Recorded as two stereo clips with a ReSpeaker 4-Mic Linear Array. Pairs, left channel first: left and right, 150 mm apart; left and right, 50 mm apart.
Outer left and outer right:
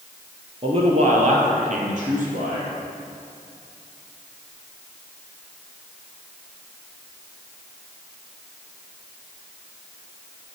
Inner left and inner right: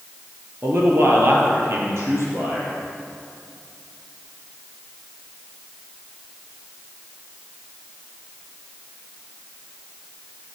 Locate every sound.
0.6 s a man speaking: 40° right (ahead or behind), 2.5 m; by 2.7 s 60° right (ahead or behind), 5 m